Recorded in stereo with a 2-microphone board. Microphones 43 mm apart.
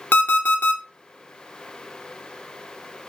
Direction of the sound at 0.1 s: 45° left (ahead or behind).